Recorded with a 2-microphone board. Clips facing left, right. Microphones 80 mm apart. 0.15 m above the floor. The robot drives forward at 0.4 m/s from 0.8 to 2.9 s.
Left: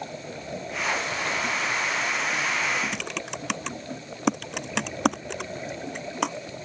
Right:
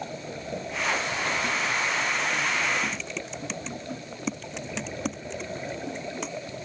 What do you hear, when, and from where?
2.9 s typing on a keyboard: 70° left (ahead or behind)